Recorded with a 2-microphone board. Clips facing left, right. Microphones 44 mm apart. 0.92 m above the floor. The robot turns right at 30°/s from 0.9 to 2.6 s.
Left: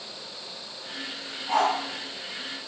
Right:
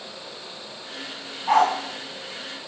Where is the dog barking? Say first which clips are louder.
Right 5 dB; 65° right (ahead or behind), 3.5 m; by 1.7 s 55° right (ahead or behind), 3.5 m.